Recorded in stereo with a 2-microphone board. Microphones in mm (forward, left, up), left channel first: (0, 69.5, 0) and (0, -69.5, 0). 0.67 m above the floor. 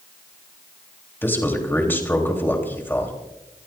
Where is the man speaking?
15° left (ahead or behind), 3.5 m.